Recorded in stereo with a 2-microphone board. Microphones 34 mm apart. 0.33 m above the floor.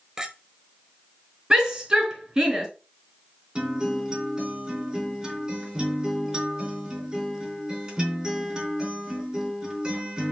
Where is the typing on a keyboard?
I don't hear typing on a keyboard.